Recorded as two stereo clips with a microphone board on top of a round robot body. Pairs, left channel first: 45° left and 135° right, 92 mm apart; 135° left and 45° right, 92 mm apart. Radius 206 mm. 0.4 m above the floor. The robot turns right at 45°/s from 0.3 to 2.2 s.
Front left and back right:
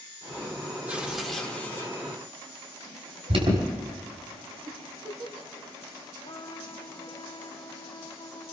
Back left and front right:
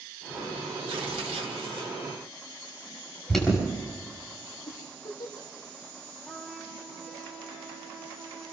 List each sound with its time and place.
0.9 s tearing paper: 65° right, 3 m; by 1.9 s 15° right, 3 m
3.3 s an alarm: 140° right, 5 m
4.7 s a giggle: straight behind, 3.5 m
6.2 s a trumpet: 35° left, 4 m